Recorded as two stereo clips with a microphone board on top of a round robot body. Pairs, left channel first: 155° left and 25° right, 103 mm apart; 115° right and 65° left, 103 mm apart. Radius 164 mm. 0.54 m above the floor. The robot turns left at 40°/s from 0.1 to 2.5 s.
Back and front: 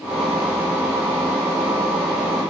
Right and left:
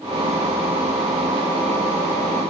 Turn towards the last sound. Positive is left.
No sound to turn to.